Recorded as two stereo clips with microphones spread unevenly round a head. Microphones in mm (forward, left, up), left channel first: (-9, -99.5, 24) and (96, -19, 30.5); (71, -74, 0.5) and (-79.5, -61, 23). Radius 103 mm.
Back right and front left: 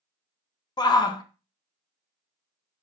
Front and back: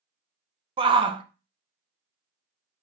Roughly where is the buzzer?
No buzzer in this recording.